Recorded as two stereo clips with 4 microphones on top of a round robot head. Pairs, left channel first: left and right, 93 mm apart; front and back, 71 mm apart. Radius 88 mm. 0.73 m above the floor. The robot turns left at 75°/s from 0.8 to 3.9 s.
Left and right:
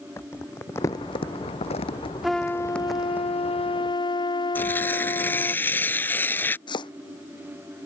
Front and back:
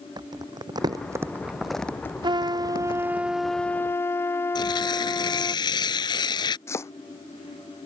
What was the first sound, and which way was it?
Crumpling, 155° left.